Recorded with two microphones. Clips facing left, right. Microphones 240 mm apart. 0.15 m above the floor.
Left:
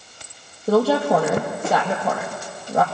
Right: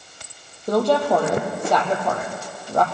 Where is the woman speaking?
5° left (ahead or behind), 4 m.